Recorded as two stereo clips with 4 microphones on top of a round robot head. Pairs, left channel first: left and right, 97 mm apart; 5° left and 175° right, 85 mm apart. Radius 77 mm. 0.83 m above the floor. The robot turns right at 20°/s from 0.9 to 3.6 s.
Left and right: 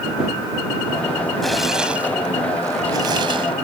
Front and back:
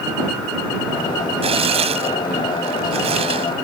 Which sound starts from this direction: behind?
Tearing paper, at 1.4 s.